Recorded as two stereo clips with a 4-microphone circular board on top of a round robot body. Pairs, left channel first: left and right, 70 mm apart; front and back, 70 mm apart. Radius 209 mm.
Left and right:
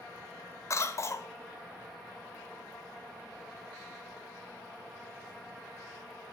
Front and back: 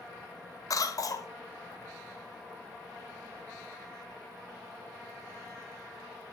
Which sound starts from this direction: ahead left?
A cough, at 0.7 s.